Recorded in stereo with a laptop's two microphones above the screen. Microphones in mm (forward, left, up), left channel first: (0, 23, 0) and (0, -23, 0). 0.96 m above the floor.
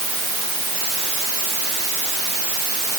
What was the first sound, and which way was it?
Only background noise.